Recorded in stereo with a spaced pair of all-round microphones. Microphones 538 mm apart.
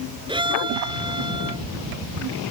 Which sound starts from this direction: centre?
A violin, at 0.3 s.